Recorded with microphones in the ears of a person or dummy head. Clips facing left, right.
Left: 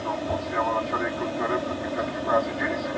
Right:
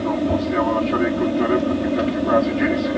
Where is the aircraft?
45° right (ahead or behind); by 3.0 s 40° right (ahead or behind).